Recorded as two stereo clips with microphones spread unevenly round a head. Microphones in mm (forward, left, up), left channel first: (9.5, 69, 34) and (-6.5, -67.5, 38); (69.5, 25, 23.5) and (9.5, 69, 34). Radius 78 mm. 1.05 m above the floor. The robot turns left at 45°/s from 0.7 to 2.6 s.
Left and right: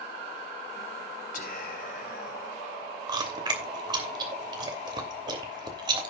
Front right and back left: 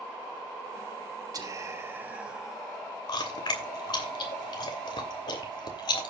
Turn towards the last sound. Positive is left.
turn(degrees=-35)